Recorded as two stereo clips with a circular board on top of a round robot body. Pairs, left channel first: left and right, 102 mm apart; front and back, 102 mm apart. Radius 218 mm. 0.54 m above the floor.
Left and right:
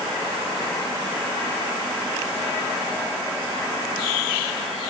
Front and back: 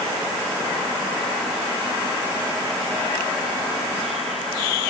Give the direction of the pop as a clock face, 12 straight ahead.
I don't hear a pop.